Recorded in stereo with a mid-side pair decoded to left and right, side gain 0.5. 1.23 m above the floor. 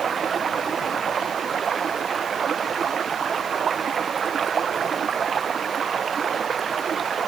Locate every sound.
0.0 s running water: 40° right